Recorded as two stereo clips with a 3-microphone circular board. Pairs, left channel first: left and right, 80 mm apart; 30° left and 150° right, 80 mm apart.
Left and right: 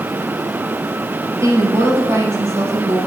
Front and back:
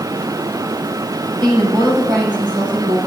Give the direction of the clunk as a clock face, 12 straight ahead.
No clunk in this recording.